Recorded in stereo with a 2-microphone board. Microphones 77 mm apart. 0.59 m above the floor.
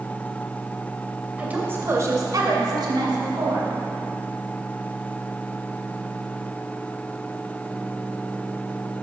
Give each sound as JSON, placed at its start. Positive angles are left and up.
{"t": 1.4, "sound": "a woman speaking", "side_deg": -20, "distance_m": 2.5}